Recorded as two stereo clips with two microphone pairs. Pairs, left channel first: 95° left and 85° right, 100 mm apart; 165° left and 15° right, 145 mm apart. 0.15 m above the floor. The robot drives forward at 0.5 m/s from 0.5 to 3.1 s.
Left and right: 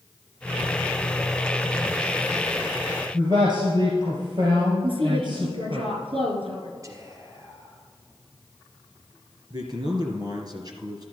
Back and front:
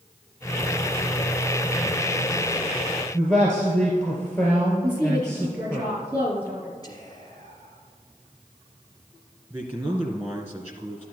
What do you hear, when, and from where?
3.1 s a man speaking: 115° right, 2.5 m
4.8 s a woman speaking: 95° right, 3.5 m
6.8 s whispering: 135° right, 2.5 m
9.5 s a man speaking: 85° right, 2 m